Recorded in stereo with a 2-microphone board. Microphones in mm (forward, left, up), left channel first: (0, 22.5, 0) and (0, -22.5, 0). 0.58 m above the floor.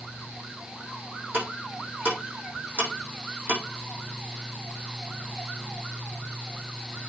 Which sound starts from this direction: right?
Ticking, at 1.3 s.